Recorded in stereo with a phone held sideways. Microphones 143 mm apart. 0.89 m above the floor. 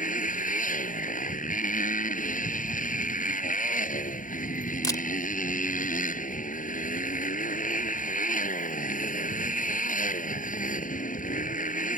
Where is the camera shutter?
30° left (ahead or behind).